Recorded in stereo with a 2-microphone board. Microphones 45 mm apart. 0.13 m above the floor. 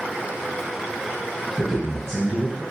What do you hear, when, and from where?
1.6 s a man speaking: 15° left (ahead or behind), 1.6 m